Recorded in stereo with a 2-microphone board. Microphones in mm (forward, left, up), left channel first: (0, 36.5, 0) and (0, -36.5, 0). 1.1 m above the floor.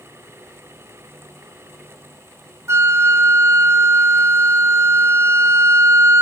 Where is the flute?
45° right (ahead or behind), 1.1 m.